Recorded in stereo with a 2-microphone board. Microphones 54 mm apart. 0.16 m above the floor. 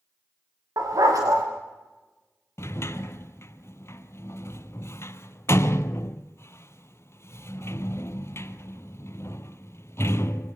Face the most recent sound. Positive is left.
turn(degrees=55)  # may be behind; listen again after turning